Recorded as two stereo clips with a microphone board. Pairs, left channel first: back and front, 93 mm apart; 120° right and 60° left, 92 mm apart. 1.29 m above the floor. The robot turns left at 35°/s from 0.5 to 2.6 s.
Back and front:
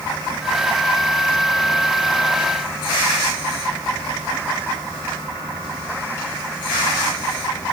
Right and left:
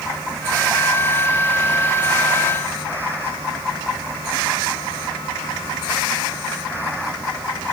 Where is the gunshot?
No gunshot in this recording.